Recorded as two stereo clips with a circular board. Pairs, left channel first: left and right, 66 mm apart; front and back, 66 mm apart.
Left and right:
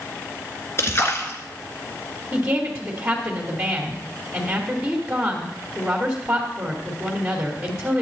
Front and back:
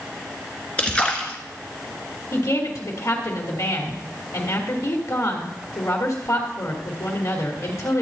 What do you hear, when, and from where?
0.8 s a splash: 65° left, 1.6 m
2.3 s a woman speaking: 15° right, 3 m